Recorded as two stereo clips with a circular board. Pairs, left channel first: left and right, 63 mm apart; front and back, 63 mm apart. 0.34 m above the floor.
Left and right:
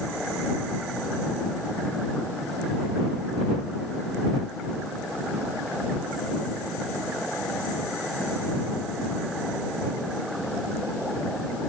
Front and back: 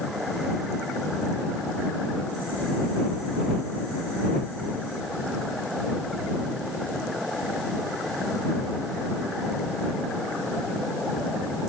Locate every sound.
Only background noise.